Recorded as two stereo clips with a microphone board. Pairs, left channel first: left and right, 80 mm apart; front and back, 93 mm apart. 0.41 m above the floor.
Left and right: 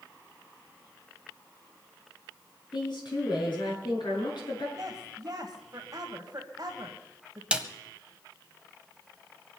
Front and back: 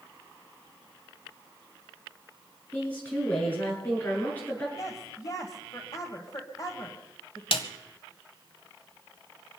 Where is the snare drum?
15° right, 1.2 m.